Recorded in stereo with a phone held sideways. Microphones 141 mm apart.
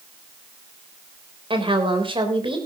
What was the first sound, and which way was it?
A woman speaking, 35° right (ahead or behind).